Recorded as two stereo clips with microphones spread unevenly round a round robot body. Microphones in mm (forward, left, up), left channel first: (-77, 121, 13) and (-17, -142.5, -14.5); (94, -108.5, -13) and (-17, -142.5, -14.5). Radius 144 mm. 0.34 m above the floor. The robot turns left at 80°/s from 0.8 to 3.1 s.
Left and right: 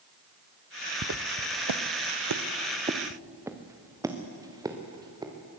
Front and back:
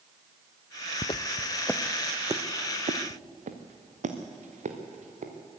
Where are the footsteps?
25° right, 0.8 m; by 5.3 s 155° right, 3 m.